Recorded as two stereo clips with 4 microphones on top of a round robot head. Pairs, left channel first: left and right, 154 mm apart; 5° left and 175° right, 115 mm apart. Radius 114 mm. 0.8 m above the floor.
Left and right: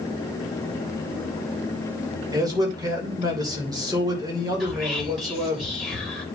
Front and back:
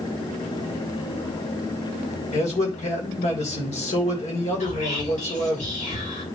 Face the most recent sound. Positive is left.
turn(degrees=-5)